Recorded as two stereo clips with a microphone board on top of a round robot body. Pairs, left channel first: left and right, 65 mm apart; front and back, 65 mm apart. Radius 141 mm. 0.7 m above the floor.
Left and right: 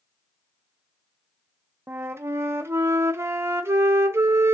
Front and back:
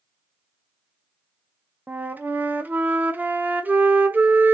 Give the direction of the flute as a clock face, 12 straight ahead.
4 o'clock.